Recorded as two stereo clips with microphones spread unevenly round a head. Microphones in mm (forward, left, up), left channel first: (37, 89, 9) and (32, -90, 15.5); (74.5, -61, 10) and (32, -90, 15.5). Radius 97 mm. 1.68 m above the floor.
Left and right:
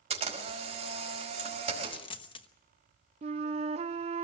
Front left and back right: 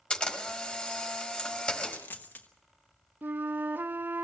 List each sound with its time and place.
0.1 s a camera shutter: 35° right, 4.5 m
1.8 s a dropped coin: 55° left, 1.0 m
3.2 s a flute: 130° right, 0.5 m